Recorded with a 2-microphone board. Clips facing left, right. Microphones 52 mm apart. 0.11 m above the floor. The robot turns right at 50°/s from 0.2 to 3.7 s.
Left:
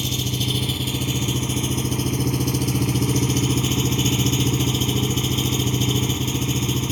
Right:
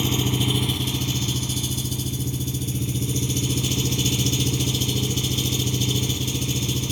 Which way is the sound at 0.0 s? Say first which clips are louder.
Right 3 dB; 20° right.